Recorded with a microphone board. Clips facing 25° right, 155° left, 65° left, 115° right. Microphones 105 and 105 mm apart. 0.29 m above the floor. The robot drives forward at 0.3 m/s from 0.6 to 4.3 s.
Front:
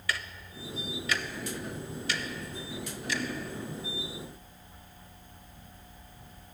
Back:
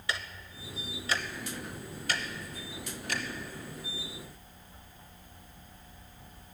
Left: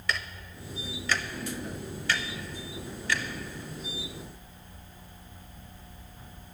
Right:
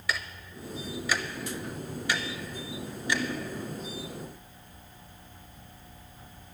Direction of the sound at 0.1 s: 170° left.